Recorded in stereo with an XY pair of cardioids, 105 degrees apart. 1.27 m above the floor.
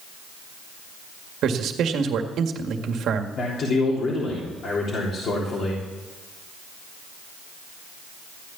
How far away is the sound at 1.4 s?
About 1.9 m.